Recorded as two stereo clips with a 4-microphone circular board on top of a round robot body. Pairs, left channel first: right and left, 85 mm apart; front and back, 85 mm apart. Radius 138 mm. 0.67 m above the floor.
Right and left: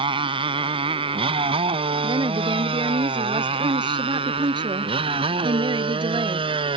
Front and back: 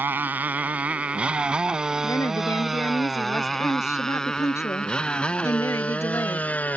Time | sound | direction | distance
0.0 | a motorcycle | 110° left | ?
2.0 | a woman speaking | 60° left | ?